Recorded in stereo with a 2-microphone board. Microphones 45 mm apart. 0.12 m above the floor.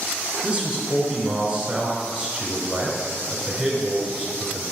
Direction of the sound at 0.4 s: 20° right (ahead or behind).